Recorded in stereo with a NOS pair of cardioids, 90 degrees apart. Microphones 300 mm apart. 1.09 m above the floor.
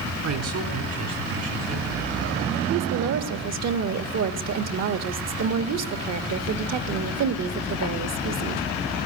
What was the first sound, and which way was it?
A man speaking, 70° right.